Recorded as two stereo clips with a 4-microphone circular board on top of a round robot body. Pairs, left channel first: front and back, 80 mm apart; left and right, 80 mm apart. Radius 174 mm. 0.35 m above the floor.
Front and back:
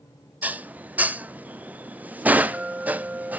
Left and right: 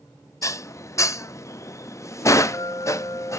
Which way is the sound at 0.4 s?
120° left.